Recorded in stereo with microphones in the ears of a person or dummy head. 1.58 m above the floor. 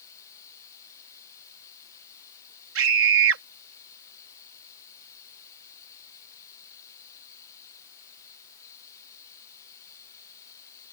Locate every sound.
0.0 s running water: 25° left (ahead or behind)
2.8 s a scream: 80° right